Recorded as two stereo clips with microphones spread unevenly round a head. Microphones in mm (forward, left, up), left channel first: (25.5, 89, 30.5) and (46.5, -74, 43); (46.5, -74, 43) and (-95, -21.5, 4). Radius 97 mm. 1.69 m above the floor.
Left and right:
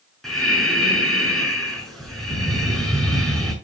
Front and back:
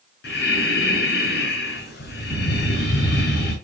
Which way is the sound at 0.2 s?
10° left.